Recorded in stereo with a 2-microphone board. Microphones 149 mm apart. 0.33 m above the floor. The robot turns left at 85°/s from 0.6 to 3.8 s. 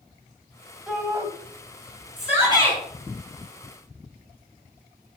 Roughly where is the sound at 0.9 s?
Ahead.